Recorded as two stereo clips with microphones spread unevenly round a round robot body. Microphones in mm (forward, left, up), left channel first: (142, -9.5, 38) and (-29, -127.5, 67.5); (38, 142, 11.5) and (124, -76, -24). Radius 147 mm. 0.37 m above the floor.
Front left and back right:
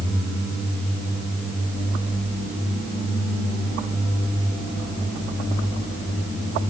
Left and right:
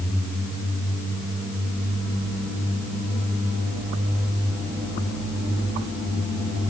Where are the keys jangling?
I don't hear keys jangling.